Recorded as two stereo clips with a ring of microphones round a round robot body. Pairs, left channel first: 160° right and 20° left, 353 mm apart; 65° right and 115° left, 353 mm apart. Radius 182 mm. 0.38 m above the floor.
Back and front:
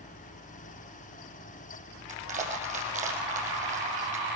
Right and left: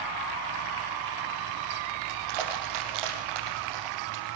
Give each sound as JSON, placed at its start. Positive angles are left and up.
{"t": 2.1, "sound": "crushing", "azimuth_deg": 95, "distance_m": 6.0}